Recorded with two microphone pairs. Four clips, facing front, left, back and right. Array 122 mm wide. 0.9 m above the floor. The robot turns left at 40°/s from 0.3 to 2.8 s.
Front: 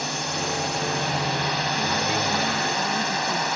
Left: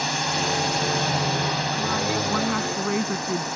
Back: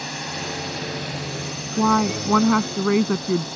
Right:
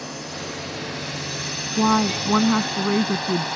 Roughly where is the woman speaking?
Behind right.